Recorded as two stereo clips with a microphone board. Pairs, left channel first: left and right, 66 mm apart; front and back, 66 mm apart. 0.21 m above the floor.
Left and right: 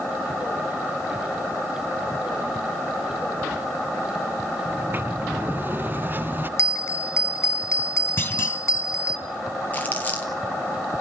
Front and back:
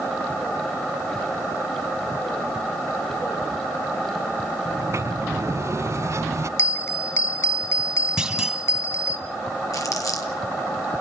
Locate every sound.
4.7 s a sliding door: 145° right, 0.6 m
6.6 s a bell: 45° left, 0.8 m
8.2 s a clunk: 105° left, 1.7 m
9.7 s crumpling: 25° left, 3.5 m